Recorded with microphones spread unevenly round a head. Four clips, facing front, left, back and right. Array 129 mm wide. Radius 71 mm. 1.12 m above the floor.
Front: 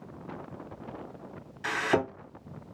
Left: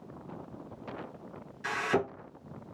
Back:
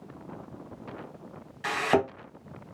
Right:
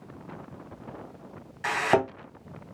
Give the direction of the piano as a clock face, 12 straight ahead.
I don't hear a piano.